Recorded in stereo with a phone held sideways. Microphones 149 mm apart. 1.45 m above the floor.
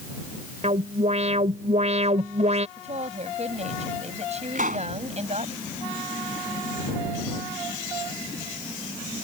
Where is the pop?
65° right (ahead or behind).